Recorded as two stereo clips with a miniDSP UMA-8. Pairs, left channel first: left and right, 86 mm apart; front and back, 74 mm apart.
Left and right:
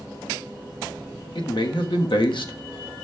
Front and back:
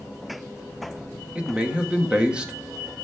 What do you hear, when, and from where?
1.4 s a man speaking: 105° left, 1.3 m